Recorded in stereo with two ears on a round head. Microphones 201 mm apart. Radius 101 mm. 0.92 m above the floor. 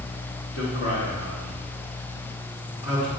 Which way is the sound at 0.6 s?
70° left (ahead or behind).